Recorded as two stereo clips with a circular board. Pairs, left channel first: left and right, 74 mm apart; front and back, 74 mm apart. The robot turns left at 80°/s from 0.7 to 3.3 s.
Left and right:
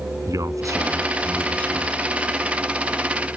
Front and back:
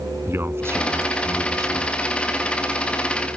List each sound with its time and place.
0.3 s a man speaking: 125° right; by 1.9 s 135° left